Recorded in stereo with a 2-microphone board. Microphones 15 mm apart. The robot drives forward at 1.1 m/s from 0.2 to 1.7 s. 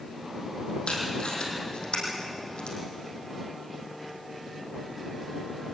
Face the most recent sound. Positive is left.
turn(degrees=85)